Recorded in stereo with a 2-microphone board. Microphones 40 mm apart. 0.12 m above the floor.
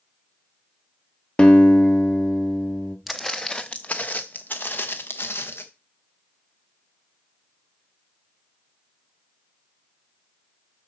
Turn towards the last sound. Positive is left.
turn(degrees=65)  # may be behind; listen again after turning